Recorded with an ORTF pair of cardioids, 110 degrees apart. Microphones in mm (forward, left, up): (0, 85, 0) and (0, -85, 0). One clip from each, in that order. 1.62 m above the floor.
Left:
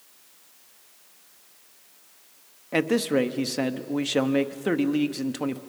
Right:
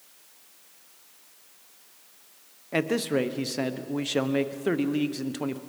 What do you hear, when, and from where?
2.7 s a man speaking: 10° left, 0.9 m